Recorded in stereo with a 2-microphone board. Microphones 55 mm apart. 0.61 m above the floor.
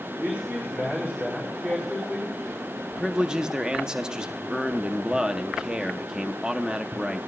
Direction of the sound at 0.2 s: 35° right (ahead or behind).